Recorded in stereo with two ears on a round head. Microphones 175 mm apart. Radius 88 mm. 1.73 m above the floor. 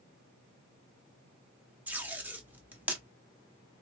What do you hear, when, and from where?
1.9 s tape being pulled: 10° right (ahead or behind), 1.0 m